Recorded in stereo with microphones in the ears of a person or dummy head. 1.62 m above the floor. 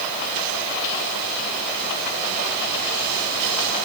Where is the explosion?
I don't hear an explosion.